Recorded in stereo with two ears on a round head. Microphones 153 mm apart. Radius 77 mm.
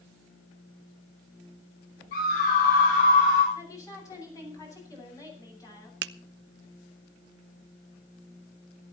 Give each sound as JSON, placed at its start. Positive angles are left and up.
{"t": 2.1, "sound": "a scream", "side_deg": 60, "distance_m": 5.0}
{"t": 3.5, "sound": "a woman speaking", "side_deg": 20, "distance_m": 8.5}
{"t": 6.0, "sound": "a finger snap", "side_deg": -75, "distance_m": 0.7}